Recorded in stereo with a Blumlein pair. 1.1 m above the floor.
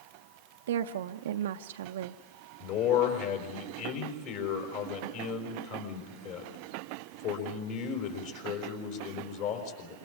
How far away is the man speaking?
About 4.5 m.